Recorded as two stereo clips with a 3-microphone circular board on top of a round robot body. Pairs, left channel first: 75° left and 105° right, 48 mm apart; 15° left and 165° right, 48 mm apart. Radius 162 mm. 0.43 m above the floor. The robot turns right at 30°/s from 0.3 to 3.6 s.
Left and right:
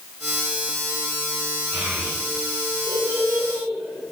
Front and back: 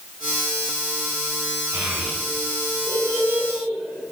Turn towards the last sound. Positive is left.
turn(degrees=-115)